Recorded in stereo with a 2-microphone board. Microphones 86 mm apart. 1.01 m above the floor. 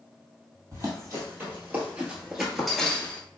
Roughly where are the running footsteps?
Right.